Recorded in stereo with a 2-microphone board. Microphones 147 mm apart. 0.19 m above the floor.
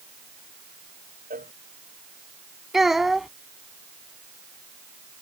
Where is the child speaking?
5° right (ahead or behind).